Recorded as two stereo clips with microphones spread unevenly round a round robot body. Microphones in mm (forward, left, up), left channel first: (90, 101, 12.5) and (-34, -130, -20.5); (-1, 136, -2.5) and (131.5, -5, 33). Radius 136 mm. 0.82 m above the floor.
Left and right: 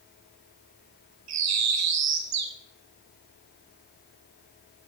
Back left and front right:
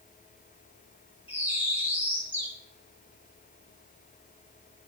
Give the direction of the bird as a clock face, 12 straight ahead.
4 o'clock.